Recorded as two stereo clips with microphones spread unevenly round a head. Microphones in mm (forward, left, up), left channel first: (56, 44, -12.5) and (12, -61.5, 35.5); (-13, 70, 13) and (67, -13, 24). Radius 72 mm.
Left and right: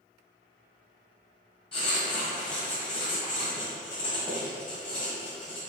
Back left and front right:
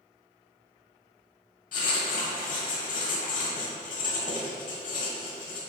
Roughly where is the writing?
Behind left.